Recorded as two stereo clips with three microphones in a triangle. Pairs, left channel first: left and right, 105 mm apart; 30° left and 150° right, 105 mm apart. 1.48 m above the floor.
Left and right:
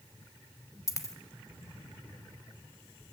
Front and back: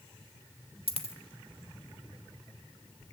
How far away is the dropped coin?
About 1.5 m.